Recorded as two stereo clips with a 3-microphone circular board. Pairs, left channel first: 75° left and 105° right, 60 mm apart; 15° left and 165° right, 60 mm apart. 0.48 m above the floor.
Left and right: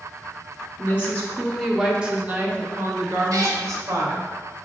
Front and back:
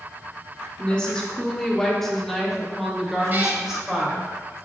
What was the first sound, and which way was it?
A woman speaking, 70° left.